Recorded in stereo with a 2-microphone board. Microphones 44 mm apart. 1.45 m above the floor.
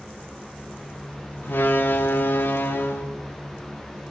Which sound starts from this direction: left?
A door slam, at 1.4 s.